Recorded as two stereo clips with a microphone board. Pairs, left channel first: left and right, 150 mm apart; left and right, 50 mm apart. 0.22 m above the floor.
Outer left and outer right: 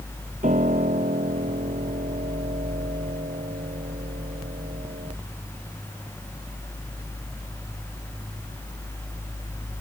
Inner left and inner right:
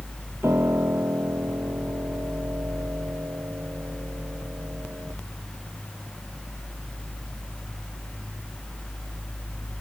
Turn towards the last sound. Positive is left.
turn(degrees=-60)  # may be behind; listen again after turning